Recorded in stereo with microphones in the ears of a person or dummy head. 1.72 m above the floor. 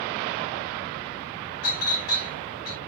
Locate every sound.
1.6 s a clink: 55° left (ahead or behind), 1.4 m